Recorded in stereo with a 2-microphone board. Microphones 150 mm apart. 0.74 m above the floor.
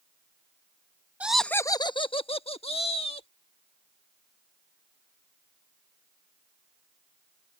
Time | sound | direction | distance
1.2 | laughter | 10° right (ahead or behind) | ?